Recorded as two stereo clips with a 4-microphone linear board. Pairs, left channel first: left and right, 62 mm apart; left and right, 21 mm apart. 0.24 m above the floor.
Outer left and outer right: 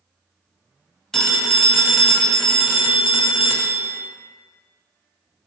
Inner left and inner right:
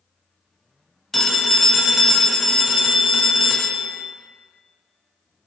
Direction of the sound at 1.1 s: 5° left (ahead or behind).